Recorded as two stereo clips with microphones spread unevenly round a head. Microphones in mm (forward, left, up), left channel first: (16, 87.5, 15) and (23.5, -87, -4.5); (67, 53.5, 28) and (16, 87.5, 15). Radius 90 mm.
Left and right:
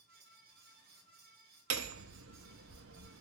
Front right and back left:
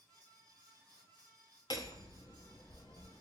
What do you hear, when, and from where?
0.0 s a fan: 115° right, 2 m
1.7 s hammering: 85° right, 0.9 m